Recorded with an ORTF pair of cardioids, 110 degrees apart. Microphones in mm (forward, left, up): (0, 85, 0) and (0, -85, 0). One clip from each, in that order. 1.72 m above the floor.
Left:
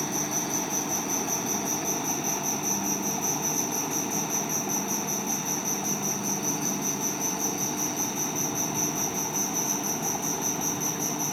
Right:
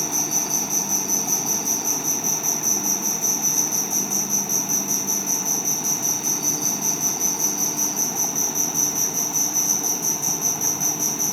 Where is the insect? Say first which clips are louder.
Right 6 dB; 45° right.